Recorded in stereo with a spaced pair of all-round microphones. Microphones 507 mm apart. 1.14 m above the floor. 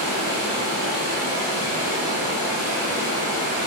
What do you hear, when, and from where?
0.0 s running water: 30° right (ahead or behind), 1.4 m